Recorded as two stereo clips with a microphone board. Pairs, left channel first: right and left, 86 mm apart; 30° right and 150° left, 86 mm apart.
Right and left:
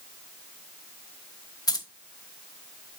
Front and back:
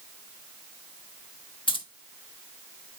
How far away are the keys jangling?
About 0.9 m.